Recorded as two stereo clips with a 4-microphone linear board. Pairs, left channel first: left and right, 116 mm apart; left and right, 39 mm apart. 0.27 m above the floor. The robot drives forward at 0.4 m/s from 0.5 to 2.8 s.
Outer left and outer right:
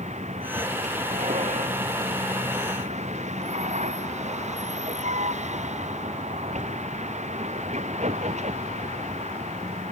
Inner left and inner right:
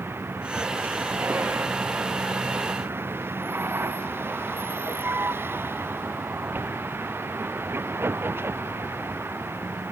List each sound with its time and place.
0.0 s a vehicle: 85° right